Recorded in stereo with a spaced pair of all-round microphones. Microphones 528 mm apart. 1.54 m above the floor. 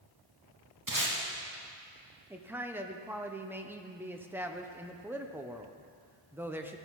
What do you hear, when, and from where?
0.9 s tape being pulled: 35° right (ahead or behind), 2 m
2.3 s a man speaking: 5° right (ahead or behind), 0.8 m